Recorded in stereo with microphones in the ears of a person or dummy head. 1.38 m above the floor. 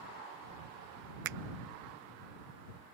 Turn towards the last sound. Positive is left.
turn(degrees=-60)  # may be behind; listen again after turning